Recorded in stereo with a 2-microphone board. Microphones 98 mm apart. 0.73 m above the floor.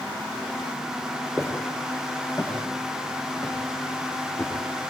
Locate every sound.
1.4 s footsteps: 25° left (ahead or behind), 7.5 m; by 4.9 s 10° left (ahead or behind), 6.5 m